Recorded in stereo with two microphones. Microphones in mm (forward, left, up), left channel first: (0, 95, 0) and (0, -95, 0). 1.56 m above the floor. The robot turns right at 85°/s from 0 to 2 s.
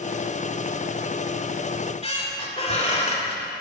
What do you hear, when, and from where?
1.7 s a squeak: 30° left (ahead or behind), 1.4 m; by 3.4 s 35° left (ahead or behind), 1.4 m